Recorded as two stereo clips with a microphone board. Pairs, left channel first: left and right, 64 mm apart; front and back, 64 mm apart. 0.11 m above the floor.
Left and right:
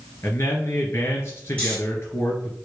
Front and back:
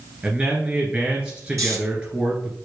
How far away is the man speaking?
About 2 m.